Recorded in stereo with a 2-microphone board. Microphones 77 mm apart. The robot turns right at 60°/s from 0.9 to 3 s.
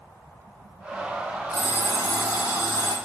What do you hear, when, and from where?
1.5 s an alarm clock: 40° left, 3.5 m; by 3.0 s 125° left, 3.5 m